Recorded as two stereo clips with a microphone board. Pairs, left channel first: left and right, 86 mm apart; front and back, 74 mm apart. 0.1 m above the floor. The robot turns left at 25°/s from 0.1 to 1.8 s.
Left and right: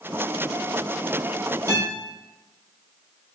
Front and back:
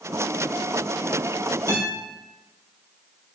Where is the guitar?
140° right, 1.4 m.